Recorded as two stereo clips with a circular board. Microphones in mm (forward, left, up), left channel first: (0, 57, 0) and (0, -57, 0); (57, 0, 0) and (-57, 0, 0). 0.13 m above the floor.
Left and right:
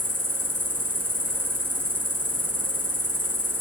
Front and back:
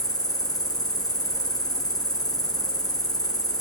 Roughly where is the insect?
Ahead right.